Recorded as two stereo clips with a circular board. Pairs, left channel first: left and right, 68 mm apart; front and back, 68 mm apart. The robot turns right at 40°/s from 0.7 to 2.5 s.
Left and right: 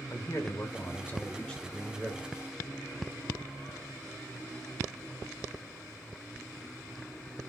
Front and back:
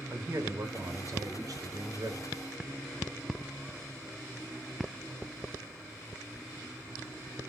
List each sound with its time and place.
0.1 s a man speaking: 135° left, 0.9 m; by 2.3 s 160° right, 0.9 m